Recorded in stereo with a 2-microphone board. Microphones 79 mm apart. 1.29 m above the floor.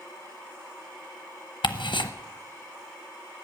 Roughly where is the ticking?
Left.